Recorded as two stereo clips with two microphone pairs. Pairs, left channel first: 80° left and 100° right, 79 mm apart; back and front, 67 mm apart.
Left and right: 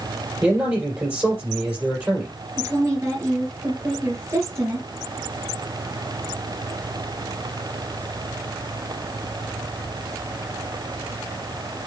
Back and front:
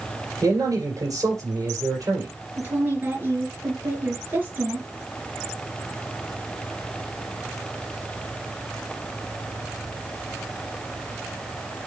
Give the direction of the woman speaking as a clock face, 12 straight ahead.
2 o'clock.